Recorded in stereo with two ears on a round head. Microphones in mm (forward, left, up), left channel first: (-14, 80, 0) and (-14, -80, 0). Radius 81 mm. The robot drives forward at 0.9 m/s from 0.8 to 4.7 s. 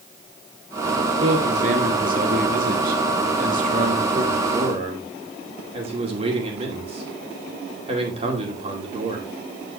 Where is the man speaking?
35° right (ahead or behind), 2 m.